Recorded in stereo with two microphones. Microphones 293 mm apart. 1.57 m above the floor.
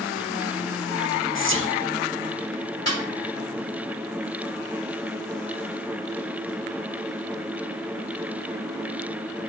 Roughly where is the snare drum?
Left.